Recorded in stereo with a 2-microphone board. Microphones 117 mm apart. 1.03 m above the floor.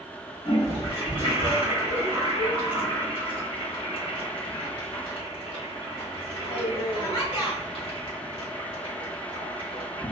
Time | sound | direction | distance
0.5 | a toilet flushing | 55° left (ahead or behind) | 1.9 m